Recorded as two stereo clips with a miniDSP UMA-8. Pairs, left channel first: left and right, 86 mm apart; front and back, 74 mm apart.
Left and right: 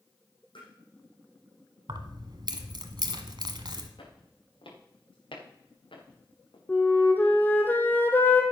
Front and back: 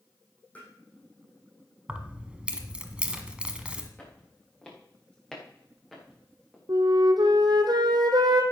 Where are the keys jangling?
105° right, 1.4 m.